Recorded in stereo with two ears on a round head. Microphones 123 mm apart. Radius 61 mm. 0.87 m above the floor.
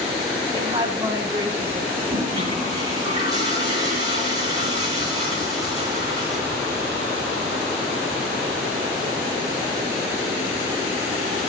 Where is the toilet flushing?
30° right (ahead or behind), 8 m.